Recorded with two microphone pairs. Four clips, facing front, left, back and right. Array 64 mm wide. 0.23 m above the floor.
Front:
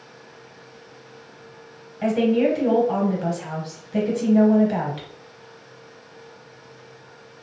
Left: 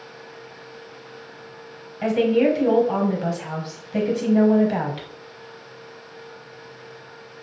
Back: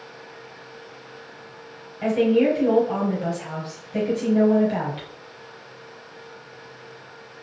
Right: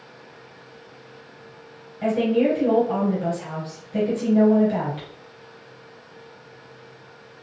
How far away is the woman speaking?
About 1.0 m.